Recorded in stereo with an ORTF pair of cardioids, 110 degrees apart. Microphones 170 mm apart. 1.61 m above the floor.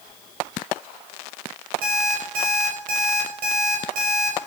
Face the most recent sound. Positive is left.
turn(degrees=-60)